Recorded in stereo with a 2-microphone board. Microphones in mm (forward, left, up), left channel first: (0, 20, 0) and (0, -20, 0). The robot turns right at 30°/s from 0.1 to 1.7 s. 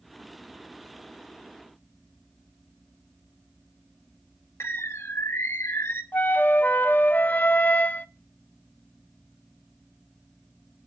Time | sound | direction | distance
4.6 | a bird | 75° left (ahead or behind) | 1.1 m
6.1 | a flute | 50° left (ahead or behind) | 0.5 m